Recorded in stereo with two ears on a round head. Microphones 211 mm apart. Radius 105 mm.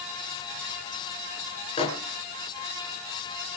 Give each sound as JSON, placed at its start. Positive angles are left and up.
{"t": 1.8, "sound": "a microwave", "side_deg": 25, "distance_m": 4.5}